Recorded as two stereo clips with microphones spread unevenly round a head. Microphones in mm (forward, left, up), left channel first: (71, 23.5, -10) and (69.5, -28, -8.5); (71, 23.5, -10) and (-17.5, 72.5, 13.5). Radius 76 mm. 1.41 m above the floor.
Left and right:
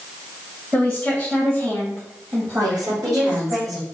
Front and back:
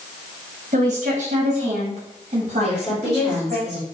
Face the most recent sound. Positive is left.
turn(degrees=-105)